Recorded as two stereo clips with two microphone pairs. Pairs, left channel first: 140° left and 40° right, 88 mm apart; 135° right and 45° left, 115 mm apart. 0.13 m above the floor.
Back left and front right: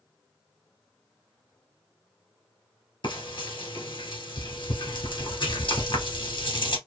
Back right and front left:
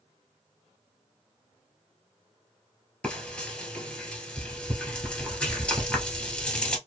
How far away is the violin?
I don't hear a violin.